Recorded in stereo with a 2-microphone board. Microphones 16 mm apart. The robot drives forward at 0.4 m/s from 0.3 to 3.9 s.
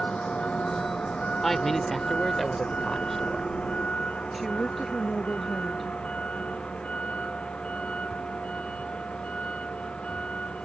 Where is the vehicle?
70° left (ahead or behind).